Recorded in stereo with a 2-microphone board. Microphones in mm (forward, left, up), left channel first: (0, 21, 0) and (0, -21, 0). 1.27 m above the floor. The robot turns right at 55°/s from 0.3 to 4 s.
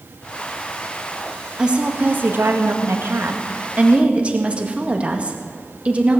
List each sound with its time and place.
1.6 s a woman speaking: 160° right, 1.7 m; by 6.2 s 30° right, 1.7 m